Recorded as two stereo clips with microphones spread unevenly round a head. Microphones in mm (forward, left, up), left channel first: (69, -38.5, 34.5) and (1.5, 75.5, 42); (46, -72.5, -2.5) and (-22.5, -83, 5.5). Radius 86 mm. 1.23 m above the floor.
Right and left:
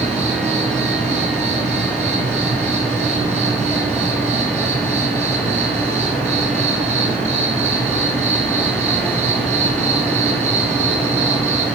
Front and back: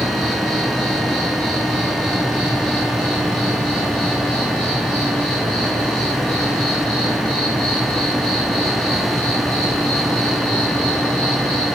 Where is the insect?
85° left, 1.6 m.